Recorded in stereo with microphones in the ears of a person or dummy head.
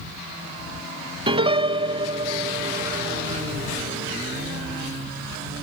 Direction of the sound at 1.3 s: 35° right (ahead or behind).